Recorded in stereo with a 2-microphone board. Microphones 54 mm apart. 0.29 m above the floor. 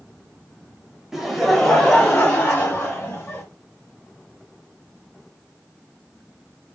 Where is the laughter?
5° right (ahead or behind), 0.9 m; by 3.4 s 40° left (ahead or behind), 1.6 m.